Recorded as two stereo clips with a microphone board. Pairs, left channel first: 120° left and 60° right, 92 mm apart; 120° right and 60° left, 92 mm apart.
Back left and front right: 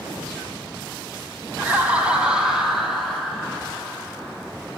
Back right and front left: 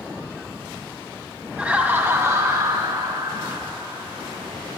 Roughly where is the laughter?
Ahead.